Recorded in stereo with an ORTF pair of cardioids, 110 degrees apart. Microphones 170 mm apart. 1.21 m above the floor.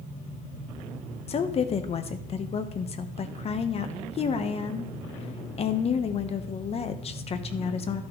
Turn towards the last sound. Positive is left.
turn(degrees=40)